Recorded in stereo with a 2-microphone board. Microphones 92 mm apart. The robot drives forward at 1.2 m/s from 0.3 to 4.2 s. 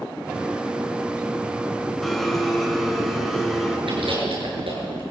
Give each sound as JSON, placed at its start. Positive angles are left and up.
{"t": 2.0, "sound": "a blender", "side_deg": 5, "distance_m": 3.5}
{"t": 3.9, "sound": "chewing", "side_deg": -75, "distance_m": 8.5}